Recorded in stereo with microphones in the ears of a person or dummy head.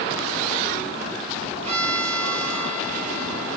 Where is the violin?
35° right (ahead or behind), 5.5 m.